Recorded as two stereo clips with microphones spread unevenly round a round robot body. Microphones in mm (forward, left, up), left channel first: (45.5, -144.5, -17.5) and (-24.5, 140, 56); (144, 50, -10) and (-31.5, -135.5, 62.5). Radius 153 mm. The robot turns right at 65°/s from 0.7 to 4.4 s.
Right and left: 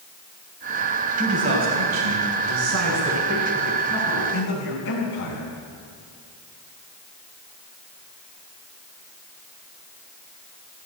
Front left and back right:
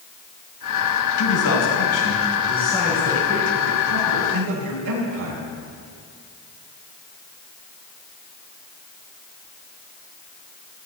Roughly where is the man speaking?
Ahead left.